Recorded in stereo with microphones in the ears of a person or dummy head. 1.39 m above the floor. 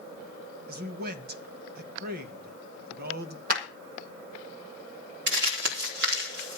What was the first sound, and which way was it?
A man speaking, 55° right (ahead or behind).